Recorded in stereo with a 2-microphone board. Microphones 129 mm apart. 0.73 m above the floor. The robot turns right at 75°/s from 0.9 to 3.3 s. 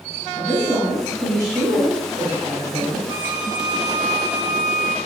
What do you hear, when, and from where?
0.3 s a woman speaking: straight behind, 3 m; by 3.1 s 20° right, 3 m
3.1 s a violin: 40° right (ahead or behind), 0.8 m; by 5.0 s 30° right (ahead or behind), 0.8 m